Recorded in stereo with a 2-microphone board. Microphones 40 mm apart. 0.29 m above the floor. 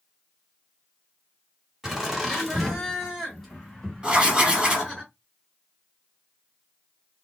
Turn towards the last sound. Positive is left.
turn(degrees=-20)  # may be behind; listen again after turning